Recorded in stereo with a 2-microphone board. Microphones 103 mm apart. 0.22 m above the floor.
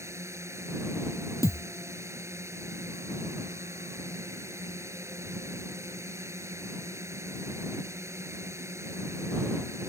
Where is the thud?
30° left (ahead or behind).